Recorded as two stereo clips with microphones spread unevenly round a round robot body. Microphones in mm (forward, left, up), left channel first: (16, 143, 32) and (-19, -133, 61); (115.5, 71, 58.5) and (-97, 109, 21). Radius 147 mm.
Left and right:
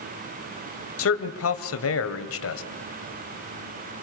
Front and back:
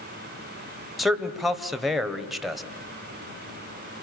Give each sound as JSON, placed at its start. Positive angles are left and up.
{"t": 1.0, "sound": "a man speaking", "azimuth_deg": 90, "distance_m": 2.0}